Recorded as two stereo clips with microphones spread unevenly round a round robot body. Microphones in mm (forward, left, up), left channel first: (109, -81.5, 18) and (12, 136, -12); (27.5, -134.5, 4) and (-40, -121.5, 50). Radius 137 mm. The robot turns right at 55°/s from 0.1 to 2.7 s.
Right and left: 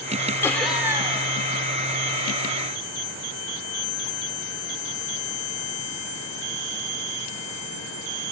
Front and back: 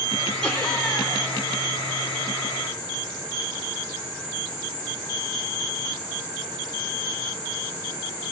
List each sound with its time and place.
0.4 s laughter: 15° left, 1.0 m; by 1.3 s 65° left, 1.0 m